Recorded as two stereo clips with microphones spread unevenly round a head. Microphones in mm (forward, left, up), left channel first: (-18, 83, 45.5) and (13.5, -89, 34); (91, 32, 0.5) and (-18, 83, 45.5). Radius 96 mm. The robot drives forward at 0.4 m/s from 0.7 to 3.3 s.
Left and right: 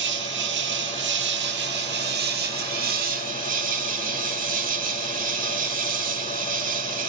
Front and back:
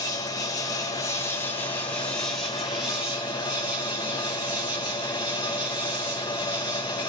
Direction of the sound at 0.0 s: 85° right.